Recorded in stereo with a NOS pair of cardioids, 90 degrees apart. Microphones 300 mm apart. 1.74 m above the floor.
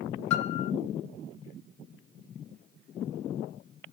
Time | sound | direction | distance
0.3 | a piano | 70° left | 1.4 m